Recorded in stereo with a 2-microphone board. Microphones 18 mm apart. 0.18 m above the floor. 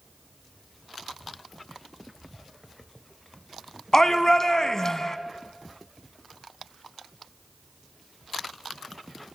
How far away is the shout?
About 1.5 m.